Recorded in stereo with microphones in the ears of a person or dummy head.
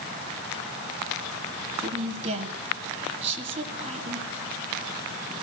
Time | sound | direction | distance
1.8 | a woman speaking | 35° right (ahead or behind) | 1.9 m